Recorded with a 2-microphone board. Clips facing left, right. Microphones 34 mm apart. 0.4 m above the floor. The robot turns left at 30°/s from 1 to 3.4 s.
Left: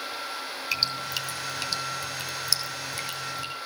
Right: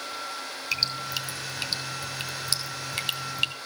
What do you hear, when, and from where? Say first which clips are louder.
0.7 s dripping: even; centre (ahead or behind), 3 m; by 3.5 s 70° right (ahead or behind), 3 m